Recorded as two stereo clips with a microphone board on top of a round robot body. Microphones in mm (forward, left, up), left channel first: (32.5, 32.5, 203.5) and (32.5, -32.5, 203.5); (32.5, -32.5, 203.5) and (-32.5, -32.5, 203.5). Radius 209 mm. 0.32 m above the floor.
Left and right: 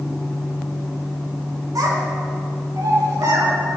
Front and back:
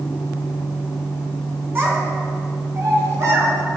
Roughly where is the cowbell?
No cowbell in this recording.